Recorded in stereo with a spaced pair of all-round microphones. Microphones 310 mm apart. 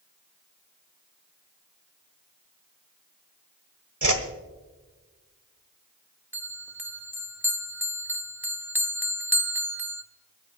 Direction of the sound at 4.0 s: 75° right (ahead or behind).